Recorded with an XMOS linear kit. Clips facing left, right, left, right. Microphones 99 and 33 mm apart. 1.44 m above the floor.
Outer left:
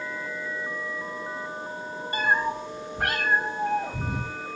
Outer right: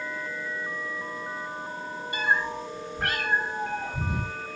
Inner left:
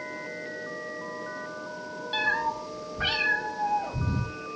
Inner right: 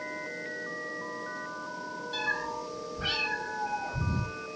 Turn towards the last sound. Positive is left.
turn(degrees=75)  # may be behind; listen again after turning